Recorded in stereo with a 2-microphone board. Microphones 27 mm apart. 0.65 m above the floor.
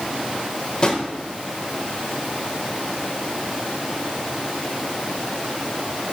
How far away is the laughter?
No laughter in this recording.